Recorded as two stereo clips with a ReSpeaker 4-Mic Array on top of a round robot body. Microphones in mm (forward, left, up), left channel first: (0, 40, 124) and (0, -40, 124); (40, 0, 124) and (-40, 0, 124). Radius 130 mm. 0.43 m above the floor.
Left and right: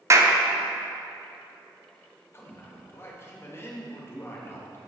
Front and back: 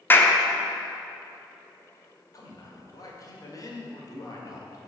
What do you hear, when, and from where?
0.1 s a clap: 55° right, 1.1 m
2.3 s a man speaking: 35° left, 2 m